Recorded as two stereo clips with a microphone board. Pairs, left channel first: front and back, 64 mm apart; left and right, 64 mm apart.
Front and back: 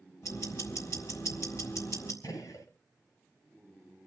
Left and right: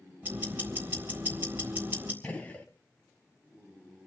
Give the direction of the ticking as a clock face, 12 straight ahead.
1 o'clock.